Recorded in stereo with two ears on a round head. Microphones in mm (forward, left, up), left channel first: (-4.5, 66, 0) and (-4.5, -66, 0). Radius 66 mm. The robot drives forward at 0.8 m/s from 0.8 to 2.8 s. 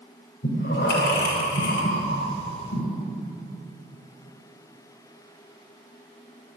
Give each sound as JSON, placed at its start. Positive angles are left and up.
{"t": 0.4, "sound": "breathing", "side_deg": 75, "distance_m": 3.0}